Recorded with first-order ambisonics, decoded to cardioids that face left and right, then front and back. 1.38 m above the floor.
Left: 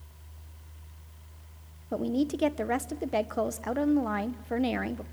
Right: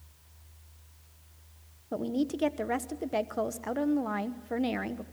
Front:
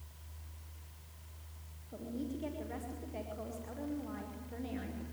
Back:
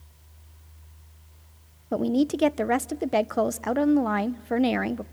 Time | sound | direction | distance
1.9 | a woman speaking | 175° left | 0.9 m